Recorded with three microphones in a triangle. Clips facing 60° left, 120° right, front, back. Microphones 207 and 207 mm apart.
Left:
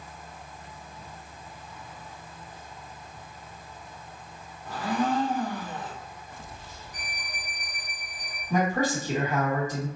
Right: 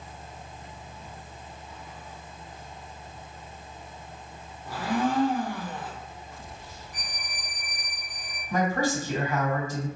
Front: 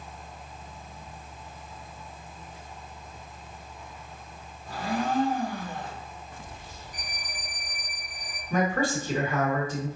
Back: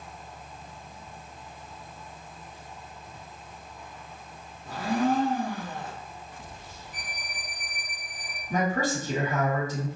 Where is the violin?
15° left, 0.7 m.